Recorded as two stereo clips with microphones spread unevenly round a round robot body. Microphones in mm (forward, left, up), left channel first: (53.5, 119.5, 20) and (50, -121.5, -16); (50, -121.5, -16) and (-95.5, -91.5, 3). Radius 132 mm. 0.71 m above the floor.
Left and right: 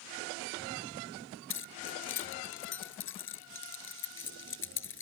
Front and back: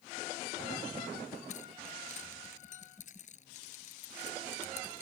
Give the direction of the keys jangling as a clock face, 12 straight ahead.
10 o'clock.